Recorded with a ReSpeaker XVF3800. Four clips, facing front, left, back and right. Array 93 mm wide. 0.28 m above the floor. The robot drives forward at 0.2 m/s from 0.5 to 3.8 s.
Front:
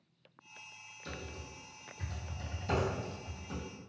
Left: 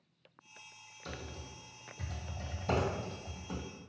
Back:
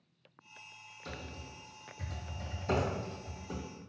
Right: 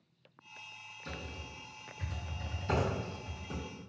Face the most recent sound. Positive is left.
turn(degrees=120)